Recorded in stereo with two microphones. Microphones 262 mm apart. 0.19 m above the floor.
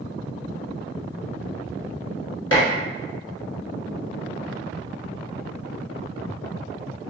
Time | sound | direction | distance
2.5 | dishes clattering | 60° left (ahead or behind) | 1.2 m